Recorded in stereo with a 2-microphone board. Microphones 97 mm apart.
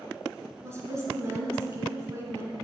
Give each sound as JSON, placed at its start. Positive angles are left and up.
{"t": 0.6, "sound": "a woman speaking", "side_deg": -30, "distance_m": 1.5}